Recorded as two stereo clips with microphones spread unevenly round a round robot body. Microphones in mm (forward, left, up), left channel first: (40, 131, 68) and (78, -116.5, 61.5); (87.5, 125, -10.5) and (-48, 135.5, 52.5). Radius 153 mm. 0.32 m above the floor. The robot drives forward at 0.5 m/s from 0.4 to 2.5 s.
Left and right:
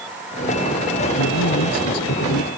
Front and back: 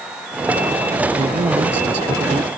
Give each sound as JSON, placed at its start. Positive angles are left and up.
{"t": 1.2, "sound": "a man speaking", "azimuth_deg": 130}